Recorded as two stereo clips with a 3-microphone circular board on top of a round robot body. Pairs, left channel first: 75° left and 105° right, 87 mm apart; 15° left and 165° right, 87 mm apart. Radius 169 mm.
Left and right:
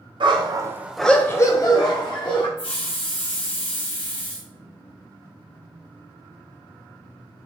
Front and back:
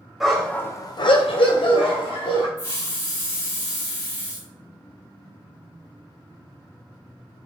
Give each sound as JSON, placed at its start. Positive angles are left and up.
{"t": 0.2, "sound": "a dog barking", "azimuth_deg": -75, "distance_m": 1.1}
{"t": 2.6, "sound": "a hiss", "azimuth_deg": 70, "distance_m": 2.5}